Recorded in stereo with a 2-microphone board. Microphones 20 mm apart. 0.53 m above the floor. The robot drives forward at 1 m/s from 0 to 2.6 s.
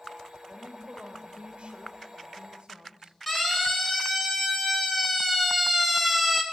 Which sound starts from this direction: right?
A woman speaking, at 0.5 s.